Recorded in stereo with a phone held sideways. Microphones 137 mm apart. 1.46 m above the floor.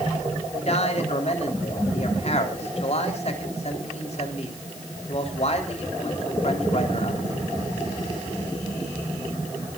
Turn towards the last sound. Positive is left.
turn(degrees=50)  # may be behind; listen again after turning